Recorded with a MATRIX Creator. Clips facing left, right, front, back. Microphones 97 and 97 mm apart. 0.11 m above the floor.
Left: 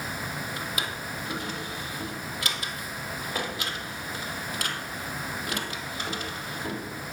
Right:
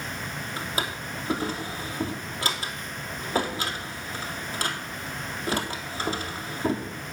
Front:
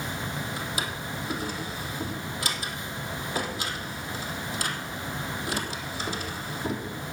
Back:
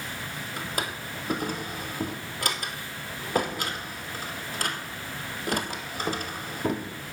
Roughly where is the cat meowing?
I don't hear a cat meowing.